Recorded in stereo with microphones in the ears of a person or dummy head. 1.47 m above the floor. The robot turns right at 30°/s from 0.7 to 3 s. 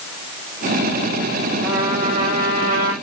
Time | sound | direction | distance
1.6 | a trumpet | 165° right | 5.5 m